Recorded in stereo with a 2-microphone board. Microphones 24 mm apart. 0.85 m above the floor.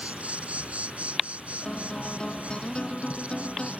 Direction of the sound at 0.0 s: 75° right (ahead or behind).